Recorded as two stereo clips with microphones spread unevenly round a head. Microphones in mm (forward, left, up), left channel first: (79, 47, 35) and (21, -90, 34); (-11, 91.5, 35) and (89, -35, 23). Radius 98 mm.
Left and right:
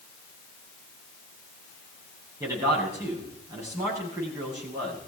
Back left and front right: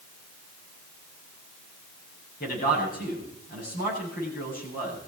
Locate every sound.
2.4 s a man speaking: 175° left, 8 m